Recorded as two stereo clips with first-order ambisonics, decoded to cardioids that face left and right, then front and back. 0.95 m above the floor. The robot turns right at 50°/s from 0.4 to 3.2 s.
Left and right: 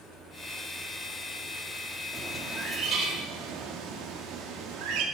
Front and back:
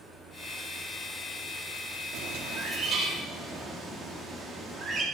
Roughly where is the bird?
Behind.